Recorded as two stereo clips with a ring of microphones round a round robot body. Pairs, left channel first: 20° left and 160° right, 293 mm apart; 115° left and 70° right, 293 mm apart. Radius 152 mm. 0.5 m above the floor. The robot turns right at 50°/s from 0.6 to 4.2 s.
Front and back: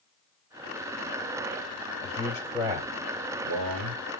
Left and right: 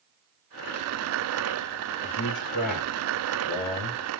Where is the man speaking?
100° left, 2 m; by 4.1 s 155° right, 2 m.